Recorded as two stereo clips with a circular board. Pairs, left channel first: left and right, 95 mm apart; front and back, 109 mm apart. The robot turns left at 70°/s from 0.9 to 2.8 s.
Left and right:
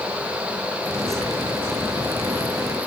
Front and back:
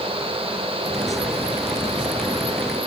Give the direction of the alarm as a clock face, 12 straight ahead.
No alarm in this recording.